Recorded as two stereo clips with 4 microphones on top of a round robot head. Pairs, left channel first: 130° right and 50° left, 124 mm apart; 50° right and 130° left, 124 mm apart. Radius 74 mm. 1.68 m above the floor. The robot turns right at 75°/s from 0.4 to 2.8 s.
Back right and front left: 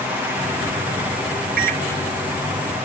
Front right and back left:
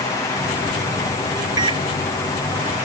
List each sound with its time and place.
1.6 s a microwave: 70° left; by 1.8 s 90° left